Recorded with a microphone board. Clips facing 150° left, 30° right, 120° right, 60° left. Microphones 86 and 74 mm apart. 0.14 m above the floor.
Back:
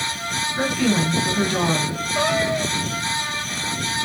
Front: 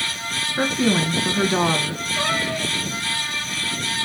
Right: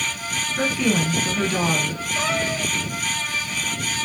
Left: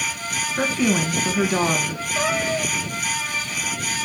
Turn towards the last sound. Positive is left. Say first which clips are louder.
# back 4 dB, left 2 dB
turn(degrees=145)